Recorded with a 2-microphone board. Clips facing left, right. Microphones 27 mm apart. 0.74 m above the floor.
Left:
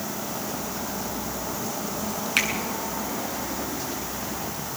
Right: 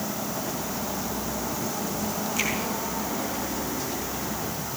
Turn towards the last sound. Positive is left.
turn(degrees=70)  # may be behind; listen again after turning